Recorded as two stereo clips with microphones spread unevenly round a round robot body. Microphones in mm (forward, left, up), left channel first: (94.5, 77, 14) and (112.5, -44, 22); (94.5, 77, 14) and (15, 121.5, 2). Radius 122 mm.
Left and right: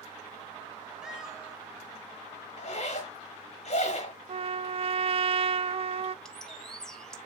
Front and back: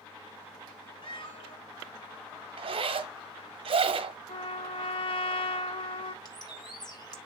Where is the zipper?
145° left, 1.0 m.